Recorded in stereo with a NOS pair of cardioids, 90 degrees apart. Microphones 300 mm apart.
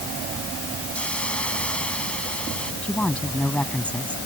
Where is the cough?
No cough in this recording.